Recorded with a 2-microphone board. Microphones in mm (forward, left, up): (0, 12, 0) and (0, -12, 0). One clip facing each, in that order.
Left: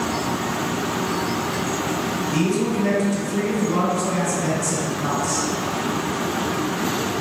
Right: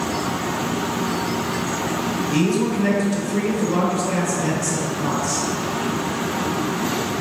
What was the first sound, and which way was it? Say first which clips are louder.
A man speaking: right 2 dB; 20° right (ahead or behind).